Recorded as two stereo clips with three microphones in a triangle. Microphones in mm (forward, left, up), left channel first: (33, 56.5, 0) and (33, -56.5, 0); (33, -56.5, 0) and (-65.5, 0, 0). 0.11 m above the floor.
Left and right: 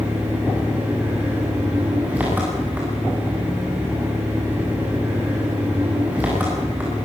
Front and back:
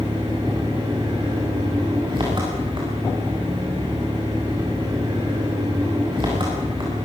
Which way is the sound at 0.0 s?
165° right.